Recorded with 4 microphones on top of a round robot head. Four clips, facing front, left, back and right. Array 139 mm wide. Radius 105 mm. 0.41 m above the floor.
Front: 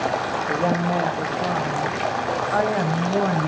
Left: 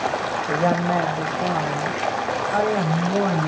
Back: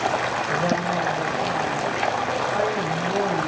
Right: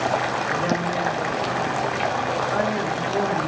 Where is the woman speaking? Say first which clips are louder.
Left 3 dB, front 3 dB; 65° left, 2 m; by 3.5 s 25° left, 3 m.